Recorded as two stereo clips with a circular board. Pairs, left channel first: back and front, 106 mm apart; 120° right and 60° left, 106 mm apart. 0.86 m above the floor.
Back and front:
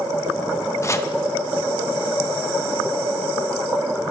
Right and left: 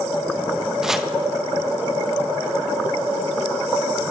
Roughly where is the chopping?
Behind left.